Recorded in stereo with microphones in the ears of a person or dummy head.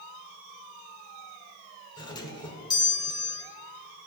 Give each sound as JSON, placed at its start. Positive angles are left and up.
{"t": 2.0, "sound": "a doorbell", "side_deg": 20, "distance_m": 1.1}